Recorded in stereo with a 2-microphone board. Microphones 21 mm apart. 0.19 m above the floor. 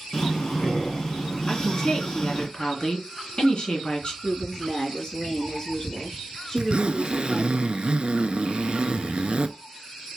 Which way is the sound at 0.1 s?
30° left (ahead or behind).